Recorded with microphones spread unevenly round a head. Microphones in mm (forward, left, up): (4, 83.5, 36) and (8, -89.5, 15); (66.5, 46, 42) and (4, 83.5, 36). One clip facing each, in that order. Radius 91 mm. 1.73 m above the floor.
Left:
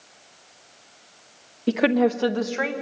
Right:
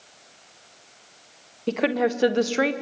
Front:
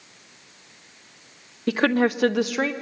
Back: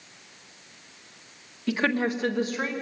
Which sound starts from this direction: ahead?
A woman speaking, at 1.7 s.